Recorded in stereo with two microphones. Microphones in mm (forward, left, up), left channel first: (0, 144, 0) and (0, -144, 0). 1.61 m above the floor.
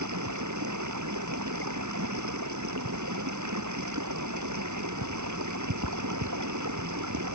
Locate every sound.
0.0 s running water: 85° right